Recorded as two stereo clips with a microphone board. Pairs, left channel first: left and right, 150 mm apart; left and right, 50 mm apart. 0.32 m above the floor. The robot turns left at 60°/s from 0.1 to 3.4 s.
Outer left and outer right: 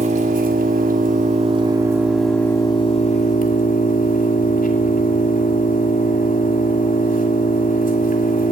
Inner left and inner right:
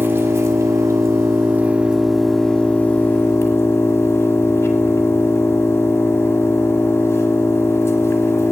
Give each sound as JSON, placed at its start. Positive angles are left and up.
{"t": 0.0, "sound": "an engine running", "azimuth_deg": -50, "distance_m": 1.5}